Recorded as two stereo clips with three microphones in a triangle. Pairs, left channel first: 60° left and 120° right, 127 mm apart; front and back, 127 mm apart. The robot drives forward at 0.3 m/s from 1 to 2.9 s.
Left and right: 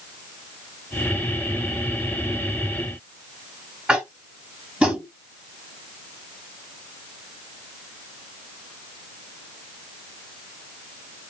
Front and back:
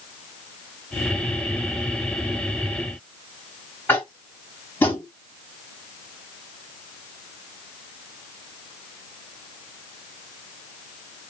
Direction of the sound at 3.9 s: 50° right.